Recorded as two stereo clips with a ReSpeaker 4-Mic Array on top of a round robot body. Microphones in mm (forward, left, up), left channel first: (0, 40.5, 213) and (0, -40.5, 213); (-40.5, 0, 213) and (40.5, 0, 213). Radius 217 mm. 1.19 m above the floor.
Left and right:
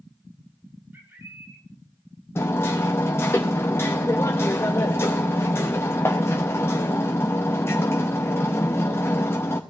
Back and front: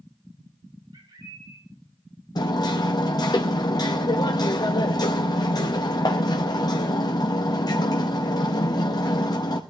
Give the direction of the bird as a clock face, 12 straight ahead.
1 o'clock.